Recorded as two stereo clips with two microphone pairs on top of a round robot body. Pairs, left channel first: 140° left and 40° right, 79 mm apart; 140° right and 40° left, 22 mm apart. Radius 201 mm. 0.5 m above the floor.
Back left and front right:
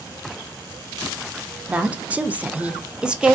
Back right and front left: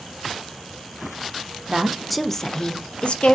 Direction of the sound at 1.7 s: 30° left.